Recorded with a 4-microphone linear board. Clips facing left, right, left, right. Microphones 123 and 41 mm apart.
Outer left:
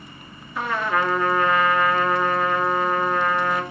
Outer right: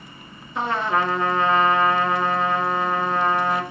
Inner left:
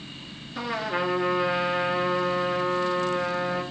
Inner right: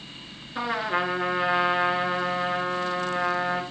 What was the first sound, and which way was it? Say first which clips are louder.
A trumpet: outer right 1 dB, inner right 2 dB; 25° right (ahead or behind).